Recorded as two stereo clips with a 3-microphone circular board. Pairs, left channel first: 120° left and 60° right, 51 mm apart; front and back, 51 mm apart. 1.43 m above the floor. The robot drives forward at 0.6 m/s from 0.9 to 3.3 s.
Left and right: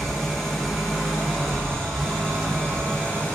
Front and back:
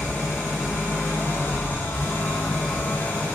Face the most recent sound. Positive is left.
turn(degrees=60)